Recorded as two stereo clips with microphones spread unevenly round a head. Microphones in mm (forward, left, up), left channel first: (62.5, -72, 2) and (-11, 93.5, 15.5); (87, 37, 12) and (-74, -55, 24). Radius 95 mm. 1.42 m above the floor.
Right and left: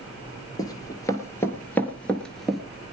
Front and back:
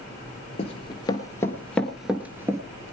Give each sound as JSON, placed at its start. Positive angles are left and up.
{"t": 0.6, "sound": "running footsteps", "azimuth_deg": -5, "distance_m": 1.6}